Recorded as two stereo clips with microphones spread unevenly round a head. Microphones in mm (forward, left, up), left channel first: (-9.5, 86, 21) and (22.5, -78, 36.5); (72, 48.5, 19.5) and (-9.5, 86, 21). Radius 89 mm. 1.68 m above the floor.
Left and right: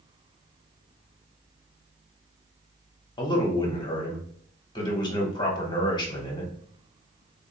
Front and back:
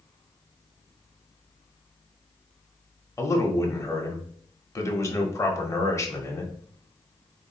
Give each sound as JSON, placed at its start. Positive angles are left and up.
{"t": 3.2, "sound": "a man speaking", "azimuth_deg": 35, "distance_m": 1.2}